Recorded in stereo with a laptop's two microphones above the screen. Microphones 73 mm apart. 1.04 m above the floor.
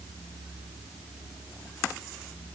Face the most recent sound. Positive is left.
No sound to turn to.